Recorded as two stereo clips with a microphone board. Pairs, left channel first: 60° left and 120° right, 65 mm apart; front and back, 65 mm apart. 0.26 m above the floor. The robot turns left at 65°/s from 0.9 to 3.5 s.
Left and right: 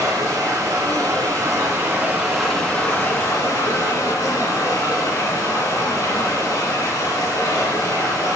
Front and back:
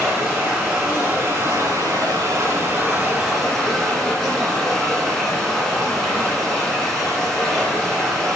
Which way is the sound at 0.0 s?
105° right.